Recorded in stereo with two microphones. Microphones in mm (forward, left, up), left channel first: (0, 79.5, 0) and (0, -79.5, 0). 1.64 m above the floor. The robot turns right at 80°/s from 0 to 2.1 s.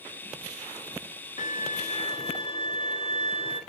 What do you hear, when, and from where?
1.4 s a violin: 80° left, 1.7 m; by 3.6 s 140° left, 1.7 m